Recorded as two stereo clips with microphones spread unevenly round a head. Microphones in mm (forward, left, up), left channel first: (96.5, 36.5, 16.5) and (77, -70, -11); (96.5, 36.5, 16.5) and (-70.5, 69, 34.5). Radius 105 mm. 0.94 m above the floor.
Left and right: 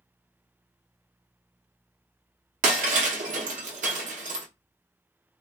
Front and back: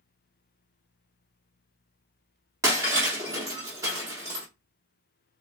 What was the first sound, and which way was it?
Breaking glass, 115° right.